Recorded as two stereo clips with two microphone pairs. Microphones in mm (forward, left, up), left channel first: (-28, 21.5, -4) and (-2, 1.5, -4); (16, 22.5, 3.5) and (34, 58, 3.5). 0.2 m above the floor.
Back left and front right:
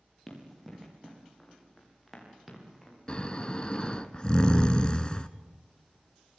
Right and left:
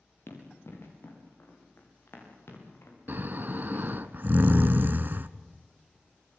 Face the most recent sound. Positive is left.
turn(degrees=90)